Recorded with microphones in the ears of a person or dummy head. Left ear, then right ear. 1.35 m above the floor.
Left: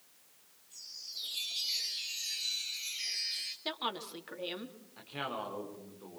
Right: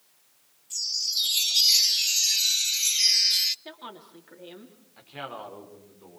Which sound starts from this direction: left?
A woman speaking, at 3.6 s.